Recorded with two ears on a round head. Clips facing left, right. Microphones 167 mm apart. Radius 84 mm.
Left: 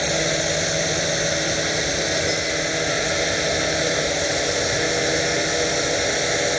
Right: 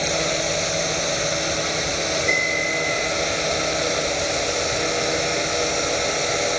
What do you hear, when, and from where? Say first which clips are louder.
0.0 s a drone: left 1 dB; 10° left (ahead or behind)
2.3 s a bell: left 1 dB; 25° right (ahead or behind)